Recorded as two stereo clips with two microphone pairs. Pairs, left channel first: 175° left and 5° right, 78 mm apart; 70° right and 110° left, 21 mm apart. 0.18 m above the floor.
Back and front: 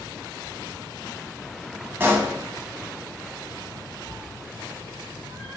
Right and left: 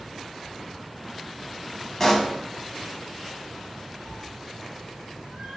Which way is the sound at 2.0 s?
5° right.